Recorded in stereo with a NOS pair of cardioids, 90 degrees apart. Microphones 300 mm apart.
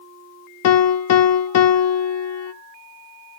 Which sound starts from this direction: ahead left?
A piano, at 0.6 s.